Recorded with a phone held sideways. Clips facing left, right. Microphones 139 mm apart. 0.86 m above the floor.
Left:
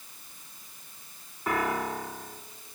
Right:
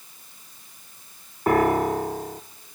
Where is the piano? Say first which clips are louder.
Right 10 dB; 50° right (ahead or behind), 0.8 m.